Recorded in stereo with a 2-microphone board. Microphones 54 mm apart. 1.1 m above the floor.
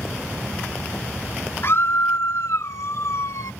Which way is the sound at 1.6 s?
55° left (ahead or behind).